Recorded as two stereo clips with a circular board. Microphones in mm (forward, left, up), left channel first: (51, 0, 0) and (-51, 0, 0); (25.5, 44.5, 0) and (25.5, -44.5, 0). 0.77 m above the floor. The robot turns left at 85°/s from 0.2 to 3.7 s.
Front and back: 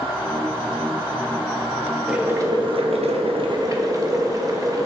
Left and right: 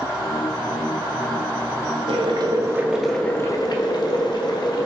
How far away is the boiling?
About 0.6 m.